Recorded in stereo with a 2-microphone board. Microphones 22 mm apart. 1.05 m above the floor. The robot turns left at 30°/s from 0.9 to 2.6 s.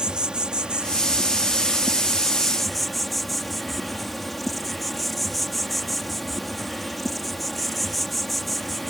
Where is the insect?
130° right; by 8.9 s 175° left.